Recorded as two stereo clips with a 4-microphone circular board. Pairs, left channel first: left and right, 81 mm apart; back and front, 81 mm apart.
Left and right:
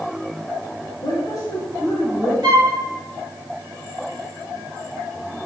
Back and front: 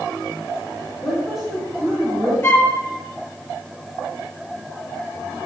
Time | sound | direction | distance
1.0 | a woman speaking | 95° left | 1.9 m
2.4 | a flute | 125° right | 1.1 m